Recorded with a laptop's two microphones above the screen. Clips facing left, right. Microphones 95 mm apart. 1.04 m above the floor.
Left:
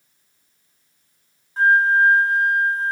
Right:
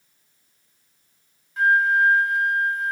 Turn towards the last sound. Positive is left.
turn(degrees=35)  # may be behind; listen again after turning